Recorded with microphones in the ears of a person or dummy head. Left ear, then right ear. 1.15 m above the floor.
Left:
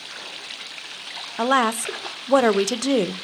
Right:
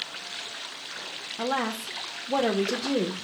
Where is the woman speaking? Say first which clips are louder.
Left 9 dB; 55° left (ahead or behind), 0.7 m.